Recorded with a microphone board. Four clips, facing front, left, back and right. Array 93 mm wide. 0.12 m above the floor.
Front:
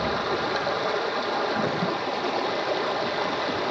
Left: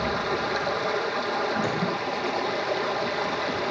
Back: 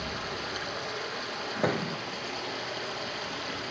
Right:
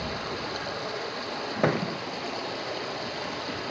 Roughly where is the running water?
Ahead left.